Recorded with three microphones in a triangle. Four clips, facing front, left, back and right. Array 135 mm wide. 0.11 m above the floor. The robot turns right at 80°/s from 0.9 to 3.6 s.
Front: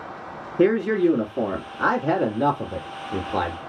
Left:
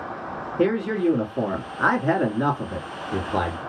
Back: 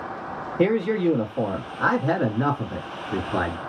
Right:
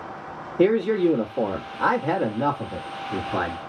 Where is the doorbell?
I don't hear a doorbell.